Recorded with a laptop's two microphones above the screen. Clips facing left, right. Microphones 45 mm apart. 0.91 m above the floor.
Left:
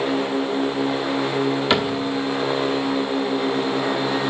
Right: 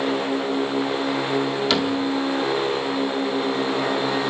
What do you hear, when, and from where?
1.7 s a cupboard door: 25° left (ahead or behind), 1.2 m